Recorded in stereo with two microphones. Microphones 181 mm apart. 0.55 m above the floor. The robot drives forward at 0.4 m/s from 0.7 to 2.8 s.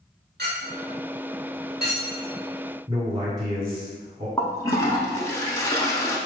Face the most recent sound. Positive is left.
turn(degrees=15)  # may be behind; listen again after turning